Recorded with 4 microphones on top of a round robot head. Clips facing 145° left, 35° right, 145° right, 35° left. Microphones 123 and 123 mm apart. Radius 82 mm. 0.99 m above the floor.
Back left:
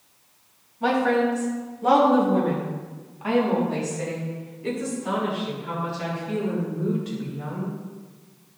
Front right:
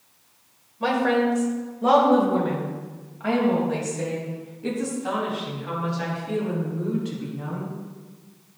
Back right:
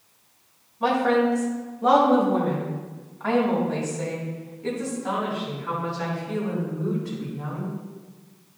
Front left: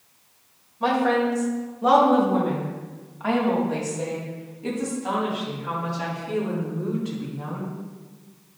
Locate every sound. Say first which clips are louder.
0.8 s a woman speaking: even, back right 1 dB; 55° right, 3.5 m; by 7.8 s 30° right, 7.5 m